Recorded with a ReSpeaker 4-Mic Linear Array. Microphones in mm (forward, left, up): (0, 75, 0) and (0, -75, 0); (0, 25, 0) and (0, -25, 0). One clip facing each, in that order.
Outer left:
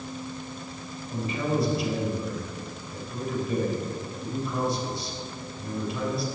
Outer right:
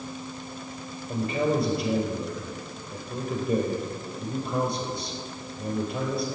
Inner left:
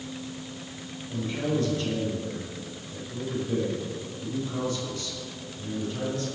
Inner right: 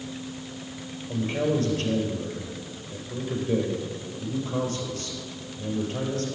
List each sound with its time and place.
1.1 s a man speaking: 55° right (ahead or behind), 4 m